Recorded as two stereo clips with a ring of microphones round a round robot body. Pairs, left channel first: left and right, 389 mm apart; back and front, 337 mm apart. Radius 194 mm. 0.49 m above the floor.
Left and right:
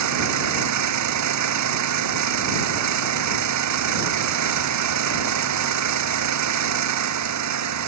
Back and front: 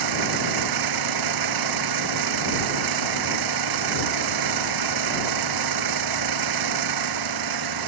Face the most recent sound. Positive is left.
turn(degrees=-40)